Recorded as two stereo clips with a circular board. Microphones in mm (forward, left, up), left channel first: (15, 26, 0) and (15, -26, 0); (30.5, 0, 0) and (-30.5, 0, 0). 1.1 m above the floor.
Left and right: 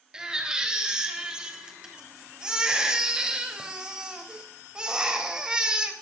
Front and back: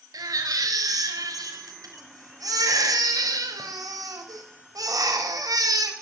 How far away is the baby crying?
About 4 m.